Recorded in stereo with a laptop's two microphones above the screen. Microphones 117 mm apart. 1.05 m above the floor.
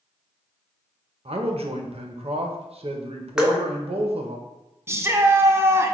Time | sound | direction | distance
1.2 | a man speaking | 60° right (ahead or behind) | 0.5 m
3.4 | dripping | 5° right (ahead or behind) | 0.6 m
4.9 | a shout | 25° right (ahead or behind) | 0.5 m